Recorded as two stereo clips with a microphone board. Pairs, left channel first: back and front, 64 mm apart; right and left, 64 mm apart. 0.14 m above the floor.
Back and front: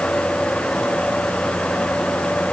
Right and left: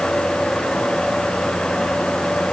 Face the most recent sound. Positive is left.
No sound to turn to.